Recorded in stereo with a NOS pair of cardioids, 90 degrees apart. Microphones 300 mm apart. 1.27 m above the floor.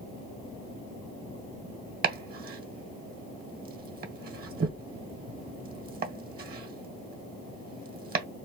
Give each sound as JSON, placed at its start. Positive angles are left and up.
{"t": 2.0, "sound": "chopping", "azimuth_deg": -30, "distance_m": 1.2}